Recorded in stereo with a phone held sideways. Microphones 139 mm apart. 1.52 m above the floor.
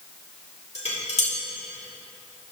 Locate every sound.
0.8 s dishes clattering: 55° left (ahead or behind), 2.5 m